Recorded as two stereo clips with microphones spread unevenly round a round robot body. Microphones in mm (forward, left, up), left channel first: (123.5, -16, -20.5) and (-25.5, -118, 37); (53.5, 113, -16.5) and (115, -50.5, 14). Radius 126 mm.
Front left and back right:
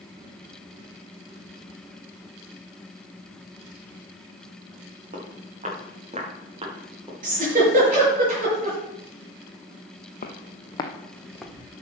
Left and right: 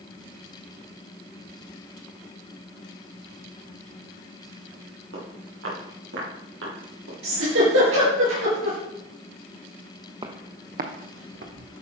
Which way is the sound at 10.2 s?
10° right.